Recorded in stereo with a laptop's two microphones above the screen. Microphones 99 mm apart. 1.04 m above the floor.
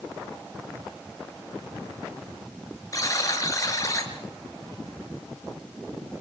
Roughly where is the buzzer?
Left.